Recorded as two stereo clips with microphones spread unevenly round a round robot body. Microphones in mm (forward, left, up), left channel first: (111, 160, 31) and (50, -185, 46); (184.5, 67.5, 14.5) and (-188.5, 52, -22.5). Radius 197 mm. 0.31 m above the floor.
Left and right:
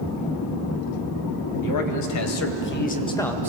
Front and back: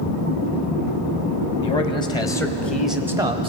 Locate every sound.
1.6 s a man speaking: 80° left, 2.5 m; by 3.5 s 175° right, 1.3 m